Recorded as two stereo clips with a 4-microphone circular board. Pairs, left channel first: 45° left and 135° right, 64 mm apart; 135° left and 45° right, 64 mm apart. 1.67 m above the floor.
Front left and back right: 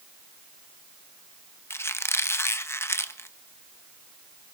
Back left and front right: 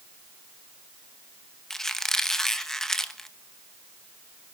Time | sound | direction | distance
1.7 | a squeak | 55° left | 1.1 m